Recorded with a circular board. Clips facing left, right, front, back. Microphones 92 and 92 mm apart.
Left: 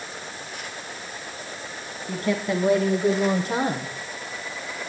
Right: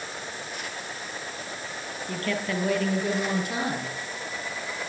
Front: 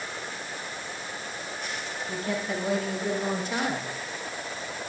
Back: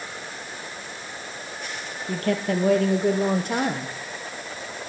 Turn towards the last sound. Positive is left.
turn(degrees=140)